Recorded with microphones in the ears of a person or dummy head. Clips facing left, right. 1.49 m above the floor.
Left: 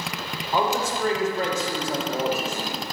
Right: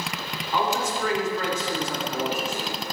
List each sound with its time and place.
0.5 s a man speaking: 35° left (ahead or behind), 1.4 m